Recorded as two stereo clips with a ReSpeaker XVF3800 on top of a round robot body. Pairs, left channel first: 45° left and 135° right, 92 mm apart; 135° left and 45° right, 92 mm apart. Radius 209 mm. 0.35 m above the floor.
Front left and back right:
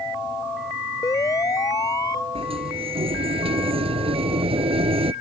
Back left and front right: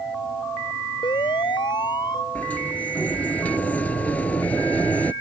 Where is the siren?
100° left; by 2.2 s 95° left.